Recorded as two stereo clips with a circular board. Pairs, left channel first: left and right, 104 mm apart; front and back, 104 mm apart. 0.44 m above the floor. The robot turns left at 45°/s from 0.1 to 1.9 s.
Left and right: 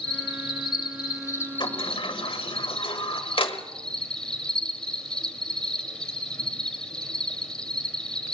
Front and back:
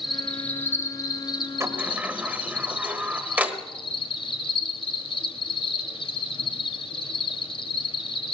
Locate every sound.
0.0 s an insect: 90° left, 1.5 m; by 8.3 s 10° left, 1.5 m
1.6 s a sliding door: 120° left, 1.3 m; by 3.6 s 110° left, 1.3 m